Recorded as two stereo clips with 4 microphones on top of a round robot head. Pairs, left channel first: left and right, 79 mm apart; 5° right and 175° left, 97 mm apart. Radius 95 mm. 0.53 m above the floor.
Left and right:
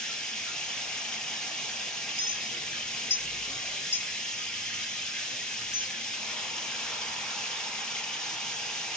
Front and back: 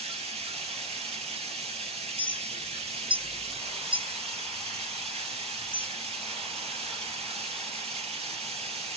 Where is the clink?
145° left, 2.5 m.